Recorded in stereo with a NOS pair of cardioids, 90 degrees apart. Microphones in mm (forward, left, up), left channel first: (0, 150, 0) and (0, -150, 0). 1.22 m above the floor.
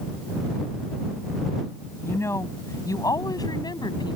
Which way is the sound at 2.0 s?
10° left.